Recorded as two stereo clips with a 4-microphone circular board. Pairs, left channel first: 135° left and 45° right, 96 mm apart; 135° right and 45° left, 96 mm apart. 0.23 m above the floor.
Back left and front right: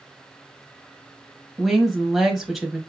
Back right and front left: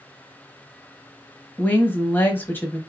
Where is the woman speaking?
130° right, 0.9 m.